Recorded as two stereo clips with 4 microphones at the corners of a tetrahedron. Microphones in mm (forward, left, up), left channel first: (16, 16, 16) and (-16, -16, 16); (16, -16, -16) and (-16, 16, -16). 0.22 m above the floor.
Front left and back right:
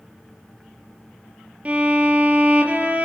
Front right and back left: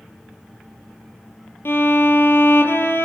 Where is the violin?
75° right, 3.5 m.